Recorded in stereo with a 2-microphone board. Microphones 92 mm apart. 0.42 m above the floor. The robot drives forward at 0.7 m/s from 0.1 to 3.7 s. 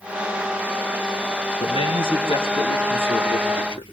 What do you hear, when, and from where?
1.6 s a man speaking: 60° left (ahead or behind), 5 m; by 3.8 s 50° left (ahead or behind), 6 m